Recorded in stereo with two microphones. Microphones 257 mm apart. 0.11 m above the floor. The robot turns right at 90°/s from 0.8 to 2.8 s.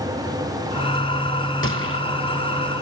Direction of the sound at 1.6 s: 55° left (ahead or behind).